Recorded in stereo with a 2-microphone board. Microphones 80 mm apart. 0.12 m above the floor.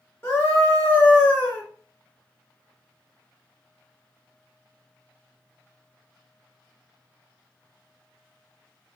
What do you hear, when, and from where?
0.2 s a scream: 30° left (ahead or behind), 1.9 m